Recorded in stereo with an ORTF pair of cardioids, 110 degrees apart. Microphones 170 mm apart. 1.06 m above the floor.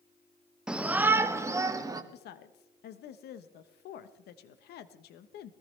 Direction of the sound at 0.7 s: 5° right.